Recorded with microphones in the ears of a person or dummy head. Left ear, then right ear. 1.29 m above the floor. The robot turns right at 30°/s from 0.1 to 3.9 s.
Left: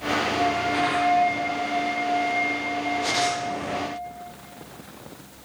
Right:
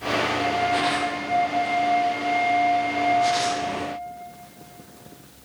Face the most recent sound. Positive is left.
turn(degrees=-75)